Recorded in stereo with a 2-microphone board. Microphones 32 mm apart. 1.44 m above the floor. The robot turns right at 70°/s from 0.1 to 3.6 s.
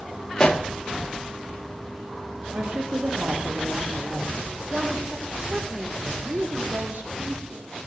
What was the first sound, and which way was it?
A pop, 20° left (ahead or behind).